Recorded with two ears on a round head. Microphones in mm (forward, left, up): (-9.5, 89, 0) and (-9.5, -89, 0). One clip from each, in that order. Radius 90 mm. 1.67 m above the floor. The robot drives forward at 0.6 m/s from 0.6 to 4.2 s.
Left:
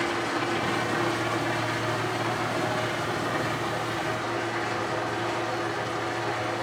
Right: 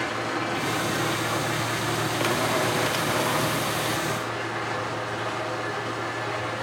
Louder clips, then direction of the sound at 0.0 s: Even; 5° left (ahead or behind).